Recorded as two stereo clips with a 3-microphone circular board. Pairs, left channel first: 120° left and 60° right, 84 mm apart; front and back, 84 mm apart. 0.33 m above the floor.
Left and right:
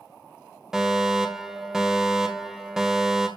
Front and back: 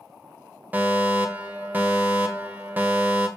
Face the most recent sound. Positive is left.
turn(degrees=-140)